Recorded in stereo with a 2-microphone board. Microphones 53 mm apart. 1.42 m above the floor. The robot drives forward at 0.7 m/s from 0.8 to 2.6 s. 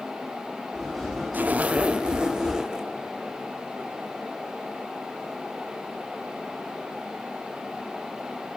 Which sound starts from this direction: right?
A zipper, at 1.3 s.